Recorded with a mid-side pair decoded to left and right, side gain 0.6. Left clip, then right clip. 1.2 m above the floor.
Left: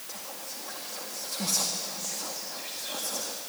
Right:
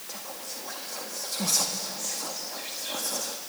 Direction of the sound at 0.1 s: 15° right.